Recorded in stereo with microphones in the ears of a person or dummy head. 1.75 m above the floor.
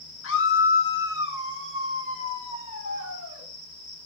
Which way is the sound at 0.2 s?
80° left.